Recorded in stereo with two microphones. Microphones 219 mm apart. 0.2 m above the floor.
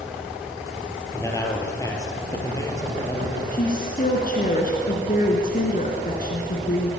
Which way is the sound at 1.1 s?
15° left (ahead or behind).